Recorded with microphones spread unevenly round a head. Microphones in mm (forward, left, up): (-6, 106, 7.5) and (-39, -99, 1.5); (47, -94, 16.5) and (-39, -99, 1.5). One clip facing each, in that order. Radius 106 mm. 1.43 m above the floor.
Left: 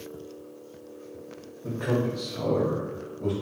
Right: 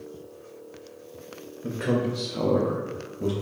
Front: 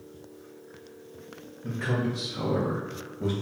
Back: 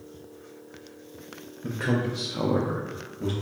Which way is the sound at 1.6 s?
165° right.